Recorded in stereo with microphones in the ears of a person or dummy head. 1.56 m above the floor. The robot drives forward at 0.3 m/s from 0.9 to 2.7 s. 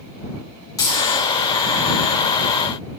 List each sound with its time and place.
0.8 s a dropped coin: 20° left (ahead or behind), 1.7 m